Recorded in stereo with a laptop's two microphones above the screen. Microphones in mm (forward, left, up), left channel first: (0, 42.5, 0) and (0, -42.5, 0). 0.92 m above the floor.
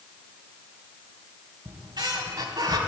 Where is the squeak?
60° right (ahead or behind), 1.3 m.